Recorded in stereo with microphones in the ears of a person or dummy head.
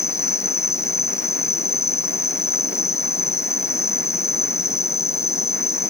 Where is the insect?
15° left (ahead or behind).